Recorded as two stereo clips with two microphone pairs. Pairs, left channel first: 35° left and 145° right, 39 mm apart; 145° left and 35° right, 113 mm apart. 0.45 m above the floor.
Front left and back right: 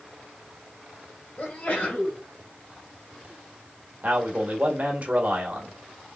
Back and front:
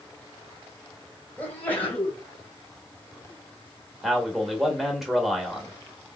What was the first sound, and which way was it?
A sneeze, 75° left.